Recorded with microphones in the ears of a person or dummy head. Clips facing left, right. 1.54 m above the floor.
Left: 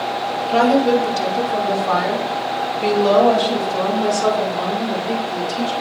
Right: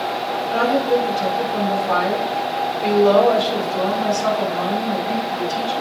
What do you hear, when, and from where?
0.5 s a woman speaking: 70° left (ahead or behind), 2 m; by 5.7 s 60° left (ahead or behind), 4.5 m